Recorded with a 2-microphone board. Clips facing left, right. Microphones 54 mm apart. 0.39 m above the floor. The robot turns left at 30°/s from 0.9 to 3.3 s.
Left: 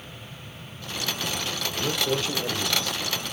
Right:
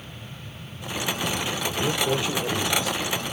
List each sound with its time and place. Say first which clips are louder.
1.7 s a man speaking: right 2 dB; 25° right (ahead or behind), 1.2 m; by 3.0 s 10° right (ahead or behind), 1.2 m